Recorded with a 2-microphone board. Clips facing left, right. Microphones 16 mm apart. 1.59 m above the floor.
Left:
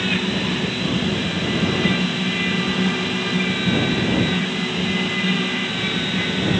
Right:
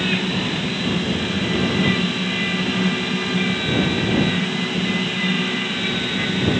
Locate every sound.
Only background noise.